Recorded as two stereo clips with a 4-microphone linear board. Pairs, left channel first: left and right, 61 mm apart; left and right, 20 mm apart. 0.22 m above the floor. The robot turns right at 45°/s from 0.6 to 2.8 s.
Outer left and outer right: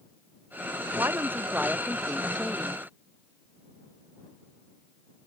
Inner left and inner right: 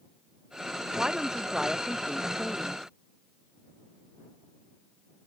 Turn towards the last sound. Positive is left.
turn(degrees=30)